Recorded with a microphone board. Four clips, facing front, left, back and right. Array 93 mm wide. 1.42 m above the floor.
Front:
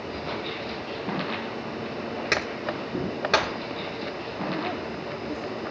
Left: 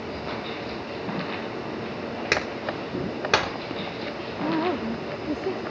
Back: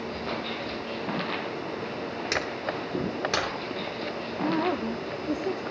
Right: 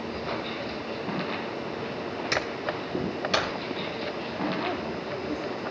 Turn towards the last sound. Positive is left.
turn(degrees=130)